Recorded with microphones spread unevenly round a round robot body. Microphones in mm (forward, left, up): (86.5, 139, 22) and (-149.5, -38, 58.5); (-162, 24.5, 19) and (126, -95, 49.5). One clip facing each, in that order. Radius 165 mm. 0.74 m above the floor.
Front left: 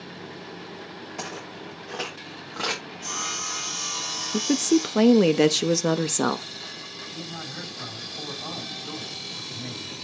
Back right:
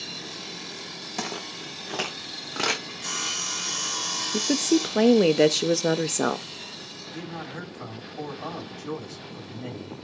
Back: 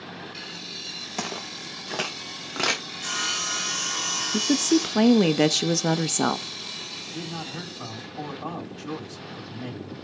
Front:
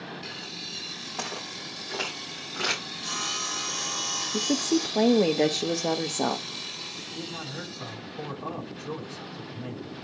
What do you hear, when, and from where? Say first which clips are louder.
1.2 s footsteps: back right 4 dB, back 4 dB; 170° right, 3.5 m; by 2.8 s straight behind, 2.5 m
2.9 s sawing: front left 1 dB, back 1 dB; 150° left, 4 m
4.3 s a woman speaking: front left 1 dB, back 4 dB; 110° left, 0.7 m
7.1 s a man speaking: back right 3 dB, back 2 dB; 175° left, 6.5 m